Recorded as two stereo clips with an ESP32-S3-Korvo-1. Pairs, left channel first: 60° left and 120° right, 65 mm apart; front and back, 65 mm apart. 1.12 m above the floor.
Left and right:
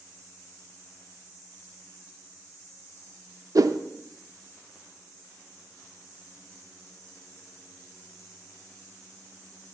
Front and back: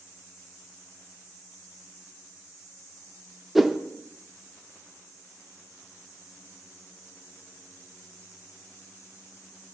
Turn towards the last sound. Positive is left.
turn(degrees=-95)